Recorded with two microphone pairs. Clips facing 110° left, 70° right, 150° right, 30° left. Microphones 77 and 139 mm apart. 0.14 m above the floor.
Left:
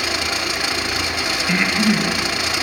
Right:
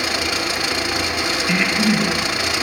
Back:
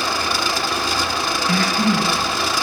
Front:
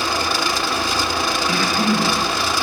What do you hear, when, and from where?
1.5 s breathing: 160° right, 2 m